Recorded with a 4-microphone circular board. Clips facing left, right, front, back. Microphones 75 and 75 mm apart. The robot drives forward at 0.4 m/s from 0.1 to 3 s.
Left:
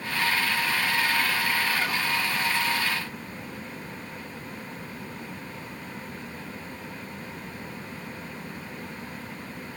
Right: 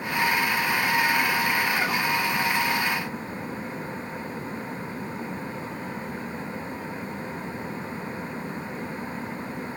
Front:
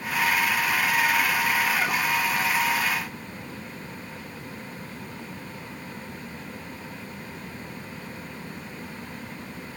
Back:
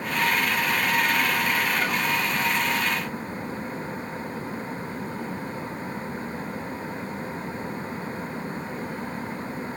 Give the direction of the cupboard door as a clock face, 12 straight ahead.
I don't hear a cupboard door.